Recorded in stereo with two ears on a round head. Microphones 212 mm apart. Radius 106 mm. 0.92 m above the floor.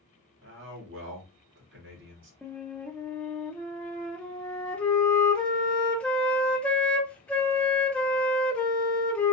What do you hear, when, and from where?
0.4 s a man speaking: 55° right (ahead or behind), 1.7 m
2.4 s a flute: 5° left (ahead or behind), 0.6 m